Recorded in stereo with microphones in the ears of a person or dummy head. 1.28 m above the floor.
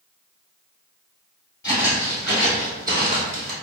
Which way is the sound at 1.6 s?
15° left (ahead or behind).